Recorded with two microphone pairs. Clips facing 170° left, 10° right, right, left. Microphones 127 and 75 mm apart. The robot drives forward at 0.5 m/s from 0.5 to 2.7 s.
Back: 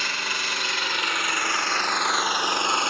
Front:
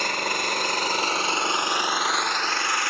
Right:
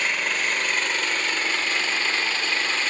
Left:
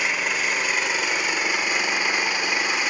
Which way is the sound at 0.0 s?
10° left.